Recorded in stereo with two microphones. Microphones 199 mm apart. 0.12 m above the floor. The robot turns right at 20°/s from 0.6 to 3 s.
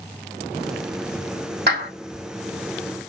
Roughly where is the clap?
Right.